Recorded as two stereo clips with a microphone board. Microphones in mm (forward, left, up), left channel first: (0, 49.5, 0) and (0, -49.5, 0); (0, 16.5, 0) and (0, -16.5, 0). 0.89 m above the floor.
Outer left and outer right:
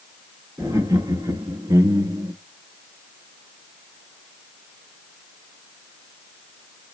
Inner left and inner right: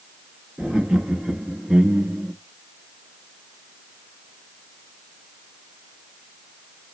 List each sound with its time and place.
0.6 s laughter: 30° right (ahead or behind), 1.9 m; by 2.3 s 40° right (ahead or behind), 1.1 m